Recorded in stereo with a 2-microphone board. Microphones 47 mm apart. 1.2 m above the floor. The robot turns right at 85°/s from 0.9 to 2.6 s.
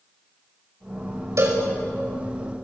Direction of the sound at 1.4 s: 80° right.